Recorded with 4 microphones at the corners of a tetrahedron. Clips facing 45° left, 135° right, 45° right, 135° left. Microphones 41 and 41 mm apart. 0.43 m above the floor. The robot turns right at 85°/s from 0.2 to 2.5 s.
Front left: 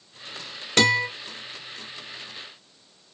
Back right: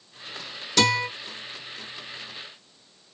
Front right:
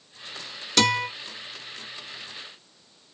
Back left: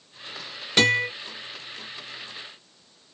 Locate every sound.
0.8 s a guitar: 75° left, 1.4 m; by 1.1 s 100° left, 1.4 m